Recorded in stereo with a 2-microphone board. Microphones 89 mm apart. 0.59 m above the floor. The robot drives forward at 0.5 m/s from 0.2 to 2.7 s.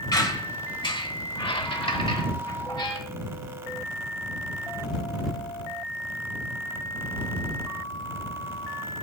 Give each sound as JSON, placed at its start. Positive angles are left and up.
{"t": 0.1, "sound": "a squeak", "side_deg": 50, "distance_m": 1.2}